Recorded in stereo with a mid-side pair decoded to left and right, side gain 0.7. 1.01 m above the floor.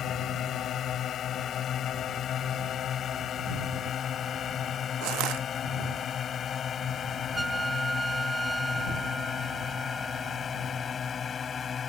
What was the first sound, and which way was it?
A drone, 45° left.